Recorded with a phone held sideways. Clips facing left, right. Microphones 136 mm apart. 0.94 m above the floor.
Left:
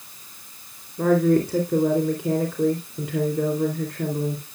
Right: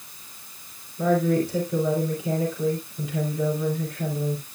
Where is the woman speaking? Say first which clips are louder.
Left 3 dB; 65° left (ahead or behind), 2.5 m.